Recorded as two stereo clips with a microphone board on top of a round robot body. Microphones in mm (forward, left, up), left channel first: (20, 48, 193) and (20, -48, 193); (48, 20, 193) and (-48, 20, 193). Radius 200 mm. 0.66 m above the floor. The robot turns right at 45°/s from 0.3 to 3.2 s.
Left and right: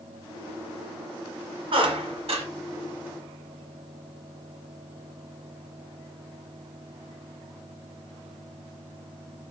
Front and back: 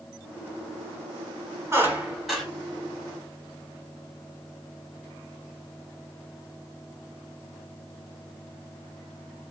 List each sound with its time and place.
1.7 s a squeak: 115° right, 1.1 m; by 2.5 s 85° right, 1.1 m